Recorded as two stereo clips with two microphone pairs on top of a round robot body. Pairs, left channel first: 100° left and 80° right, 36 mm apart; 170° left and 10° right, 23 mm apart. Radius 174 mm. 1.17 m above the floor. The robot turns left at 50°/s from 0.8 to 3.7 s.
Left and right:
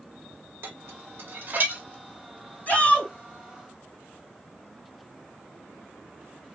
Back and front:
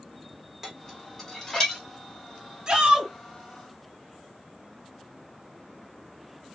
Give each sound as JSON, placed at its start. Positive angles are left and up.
{"t": 0.6, "sound": "dishes clattering", "azimuth_deg": -80, "distance_m": 1.0}
{"t": 2.7, "sound": "a shout", "azimuth_deg": 50, "distance_m": 2.0}